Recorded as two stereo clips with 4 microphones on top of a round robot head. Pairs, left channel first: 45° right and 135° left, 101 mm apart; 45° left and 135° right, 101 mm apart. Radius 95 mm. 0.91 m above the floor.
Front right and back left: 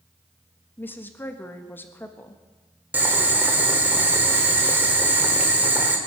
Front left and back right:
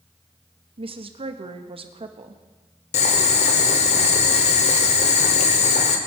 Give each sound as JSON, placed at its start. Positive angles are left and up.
{"t": 0.8, "sound": "a woman speaking", "azimuth_deg": -115, "distance_m": 1.4}
{"t": 2.9, "sound": "boiling", "azimuth_deg": 60, "distance_m": 1.5}